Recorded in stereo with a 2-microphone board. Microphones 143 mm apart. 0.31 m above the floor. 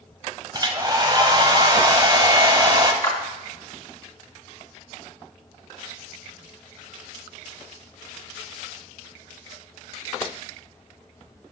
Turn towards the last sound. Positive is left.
turn(degrees=25)  # may be behind; listen again after turning